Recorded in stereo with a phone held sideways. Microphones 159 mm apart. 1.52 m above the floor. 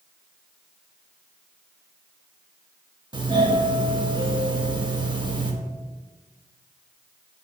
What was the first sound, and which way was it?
A doorbell, 30° right (ahead or behind).